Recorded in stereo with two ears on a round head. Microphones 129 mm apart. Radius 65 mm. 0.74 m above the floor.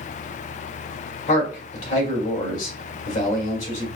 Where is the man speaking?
55° left (ahead or behind), 2.5 m.